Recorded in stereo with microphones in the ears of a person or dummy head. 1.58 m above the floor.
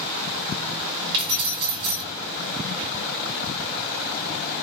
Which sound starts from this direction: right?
Keys jangling, at 1.1 s.